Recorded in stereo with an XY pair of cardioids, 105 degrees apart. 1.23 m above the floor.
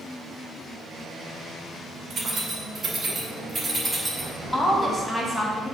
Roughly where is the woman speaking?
Ahead.